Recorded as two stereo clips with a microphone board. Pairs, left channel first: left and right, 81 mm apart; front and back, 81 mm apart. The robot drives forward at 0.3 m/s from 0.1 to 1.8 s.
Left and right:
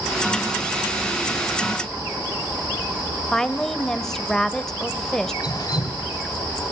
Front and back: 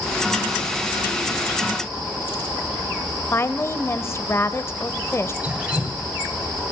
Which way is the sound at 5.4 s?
105° left.